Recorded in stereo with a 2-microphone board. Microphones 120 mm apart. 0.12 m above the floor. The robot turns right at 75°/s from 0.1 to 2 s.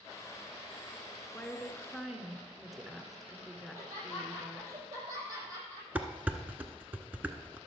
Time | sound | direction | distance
1.3 | a woman speaking | 15° left (ahead or behind) | 1.1 m
3.6 | laughter | 30° right (ahead or behind) | 5 m
6.0 | dishes clattering | 15° right (ahead or behind) | 0.9 m